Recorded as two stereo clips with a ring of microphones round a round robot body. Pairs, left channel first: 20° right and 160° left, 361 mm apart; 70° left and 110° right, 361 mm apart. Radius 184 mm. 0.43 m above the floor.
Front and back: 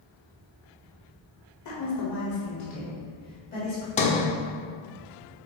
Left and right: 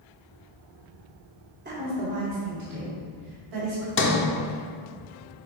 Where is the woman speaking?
55° right, 2.0 m; by 3.9 s 95° right, 3 m.